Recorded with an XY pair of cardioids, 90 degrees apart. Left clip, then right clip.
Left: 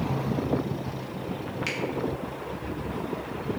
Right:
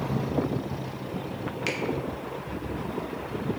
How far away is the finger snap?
About 0.9 m.